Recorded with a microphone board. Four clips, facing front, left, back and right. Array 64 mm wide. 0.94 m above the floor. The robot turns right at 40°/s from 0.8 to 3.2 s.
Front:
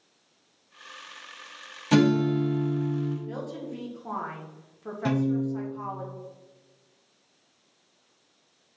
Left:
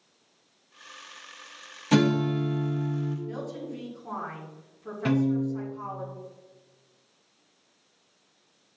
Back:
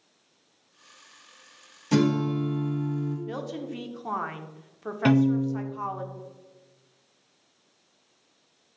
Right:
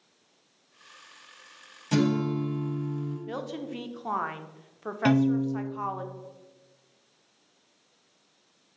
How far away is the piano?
About 0.7 m.